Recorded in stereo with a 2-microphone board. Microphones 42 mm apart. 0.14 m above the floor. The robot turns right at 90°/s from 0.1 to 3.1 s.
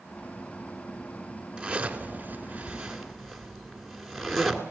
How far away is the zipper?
About 2 m.